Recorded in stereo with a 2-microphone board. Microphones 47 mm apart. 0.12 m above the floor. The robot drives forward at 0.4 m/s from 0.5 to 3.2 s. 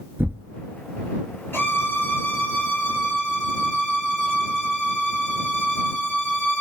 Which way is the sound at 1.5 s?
50° left (ahead or behind).